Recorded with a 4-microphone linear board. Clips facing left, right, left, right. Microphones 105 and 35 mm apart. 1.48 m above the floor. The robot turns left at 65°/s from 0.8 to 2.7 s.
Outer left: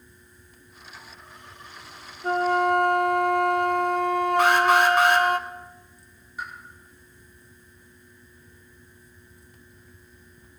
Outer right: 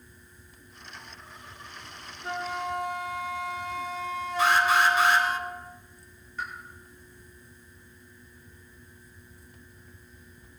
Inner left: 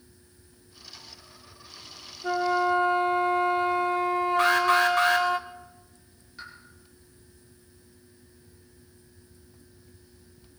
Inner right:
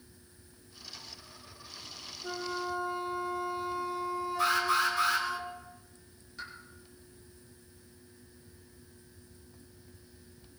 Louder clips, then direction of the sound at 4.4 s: Outer left 2 dB, inner left 5 dB; 60° left (ahead or behind).